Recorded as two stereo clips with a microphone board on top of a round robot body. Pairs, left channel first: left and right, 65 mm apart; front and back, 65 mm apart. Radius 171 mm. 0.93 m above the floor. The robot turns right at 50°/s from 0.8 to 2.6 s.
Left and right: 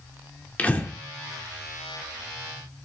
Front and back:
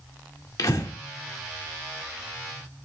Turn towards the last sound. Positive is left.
turn(degrees=115)